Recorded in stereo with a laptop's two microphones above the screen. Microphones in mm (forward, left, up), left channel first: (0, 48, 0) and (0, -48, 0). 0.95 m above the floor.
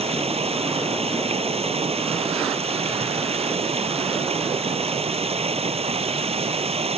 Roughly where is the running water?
Right.